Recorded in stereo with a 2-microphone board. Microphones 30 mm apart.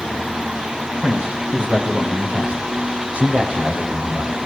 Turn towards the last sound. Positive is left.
turn(degrees=-55)  # may be behind; listen again after turning